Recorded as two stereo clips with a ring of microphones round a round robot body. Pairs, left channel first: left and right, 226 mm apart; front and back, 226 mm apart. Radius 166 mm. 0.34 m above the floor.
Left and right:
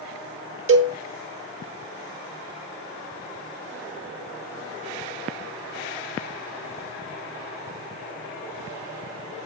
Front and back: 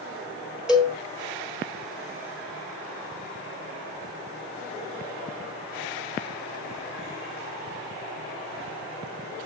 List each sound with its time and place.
0.7 s a cowbell: 90° right, 1.9 m